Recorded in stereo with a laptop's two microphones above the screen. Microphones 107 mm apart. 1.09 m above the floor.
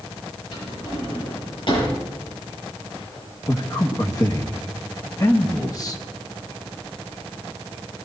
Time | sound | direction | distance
0.5 | a drawer | 50° left (ahead or behind) | 8.5 m
3.5 | a man speaking | 35° left (ahead or behind) | 1.2 m